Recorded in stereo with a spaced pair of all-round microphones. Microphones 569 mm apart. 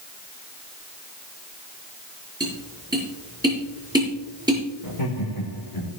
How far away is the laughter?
About 3.5 m.